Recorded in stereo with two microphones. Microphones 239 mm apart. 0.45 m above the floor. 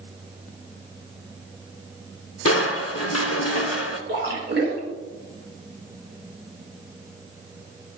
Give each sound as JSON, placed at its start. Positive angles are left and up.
{"t": 2.5, "sound": "crushing", "side_deg": 70, "distance_m": 0.8}
{"t": 4.1, "sound": "a splash", "side_deg": -45, "distance_m": 2.0}